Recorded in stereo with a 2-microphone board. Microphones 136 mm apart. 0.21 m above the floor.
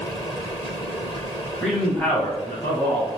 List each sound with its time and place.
1.6 s a man speaking: 5° left (ahead or behind), 1.2 m; by 3.1 s 15° left (ahead or behind), 1.7 m